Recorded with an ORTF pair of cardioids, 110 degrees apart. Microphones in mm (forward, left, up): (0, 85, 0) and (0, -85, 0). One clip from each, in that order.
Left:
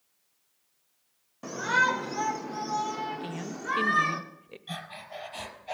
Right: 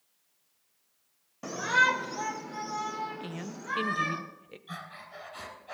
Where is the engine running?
No engine running in this recording.